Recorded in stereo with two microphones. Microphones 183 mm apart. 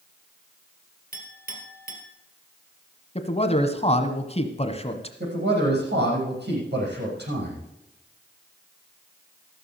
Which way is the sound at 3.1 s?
35° left (ahead or behind).